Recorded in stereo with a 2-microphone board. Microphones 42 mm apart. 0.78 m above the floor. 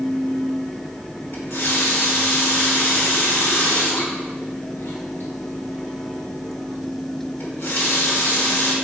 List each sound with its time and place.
1.3 s a running tap: 80° left, 1.6 m